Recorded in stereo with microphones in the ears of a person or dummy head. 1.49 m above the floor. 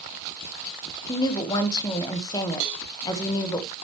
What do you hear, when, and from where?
1.1 s a woman speaking: 20° left (ahead or behind), 1.4 m
2.6 s a cowbell: 55° right (ahead or behind), 1.4 m